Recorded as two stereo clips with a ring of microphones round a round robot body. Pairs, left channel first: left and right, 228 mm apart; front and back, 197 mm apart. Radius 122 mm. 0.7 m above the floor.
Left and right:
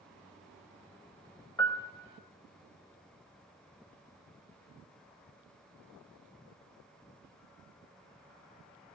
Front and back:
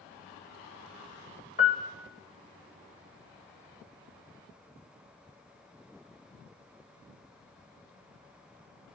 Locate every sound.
1.6 s a piano: 25° left, 1.1 m